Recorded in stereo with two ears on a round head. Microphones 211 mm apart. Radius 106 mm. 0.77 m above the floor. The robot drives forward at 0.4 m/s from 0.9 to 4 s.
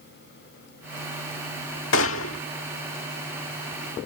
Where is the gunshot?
55° left (ahead or behind); by 2.4 s 60° left (ahead or behind).